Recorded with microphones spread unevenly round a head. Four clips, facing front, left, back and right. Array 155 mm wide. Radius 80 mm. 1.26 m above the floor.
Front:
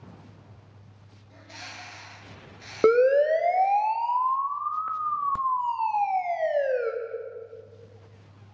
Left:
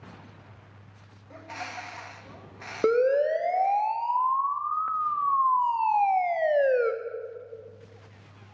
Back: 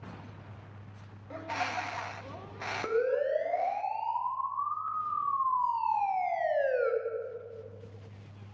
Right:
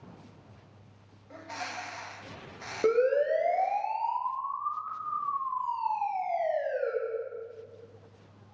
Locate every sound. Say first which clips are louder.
1.3 s a bird: left 1 dB, back 12 dB; straight behind, 1.8 m
2.8 s a siren: left 3 dB, front 10 dB; 20° left, 2.5 m; by 6.9 s 70° left, 2.5 m